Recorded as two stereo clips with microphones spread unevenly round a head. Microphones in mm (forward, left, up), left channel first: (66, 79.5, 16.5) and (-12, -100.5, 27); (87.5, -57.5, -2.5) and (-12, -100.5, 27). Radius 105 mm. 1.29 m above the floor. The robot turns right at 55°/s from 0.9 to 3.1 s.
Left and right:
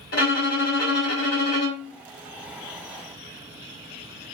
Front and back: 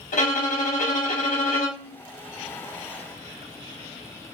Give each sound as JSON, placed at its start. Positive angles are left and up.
{"t": 0.1, "sound": "a violin", "azimuth_deg": 25, "distance_m": 2.5}